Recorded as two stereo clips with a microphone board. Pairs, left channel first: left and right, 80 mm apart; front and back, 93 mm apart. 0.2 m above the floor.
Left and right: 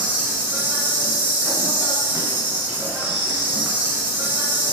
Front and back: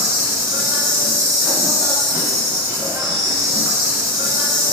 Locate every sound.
0.0 s an insect: 145° right, 0.9 m